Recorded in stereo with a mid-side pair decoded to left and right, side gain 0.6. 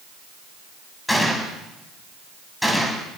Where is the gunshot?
10° left, 9.5 m.